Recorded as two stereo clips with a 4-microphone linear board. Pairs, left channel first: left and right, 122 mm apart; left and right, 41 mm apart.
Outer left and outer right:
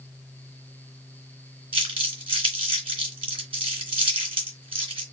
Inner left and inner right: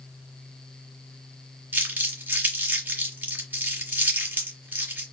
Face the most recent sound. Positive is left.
turn(degrees=-45)  # may be behind; listen again after turning